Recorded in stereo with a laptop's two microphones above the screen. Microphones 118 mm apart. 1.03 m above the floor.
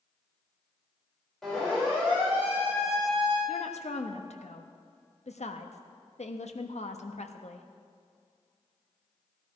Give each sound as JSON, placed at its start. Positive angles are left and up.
{"t": 1.4, "sound": "a siren", "side_deg": 5, "distance_m": 5.0}
{"t": 3.5, "sound": "a woman speaking", "side_deg": 65, "distance_m": 1.2}